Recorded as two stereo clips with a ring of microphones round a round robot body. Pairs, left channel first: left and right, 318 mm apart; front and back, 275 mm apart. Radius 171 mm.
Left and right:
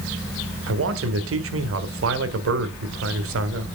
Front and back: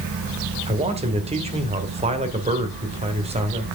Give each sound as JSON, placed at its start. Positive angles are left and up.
{"t": 0.7, "sound": "a man speaking", "azimuth_deg": -120, "distance_m": 1.8}